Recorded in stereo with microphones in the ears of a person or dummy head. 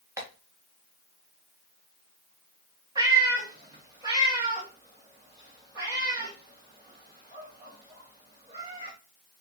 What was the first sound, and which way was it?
Tapping, 15° right (ahead or behind).